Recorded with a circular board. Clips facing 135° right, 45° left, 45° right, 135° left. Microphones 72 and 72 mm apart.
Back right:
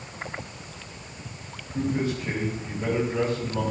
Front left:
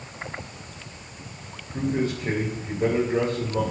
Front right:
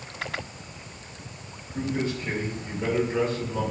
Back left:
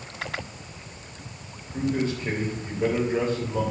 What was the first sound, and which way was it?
A man speaking, 80° left.